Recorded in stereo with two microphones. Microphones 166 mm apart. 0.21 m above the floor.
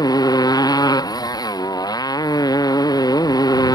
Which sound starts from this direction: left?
A motorcycle, at 0.0 s.